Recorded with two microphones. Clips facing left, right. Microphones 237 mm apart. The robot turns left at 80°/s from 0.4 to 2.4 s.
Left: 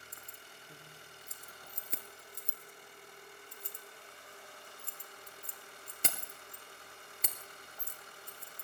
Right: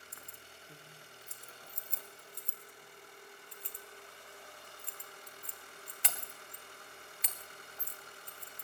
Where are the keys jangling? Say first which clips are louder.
Even; 25° right (ahead or behind), 1.8 m; by 8.7 s 45° left (ahead or behind), 1.8 m.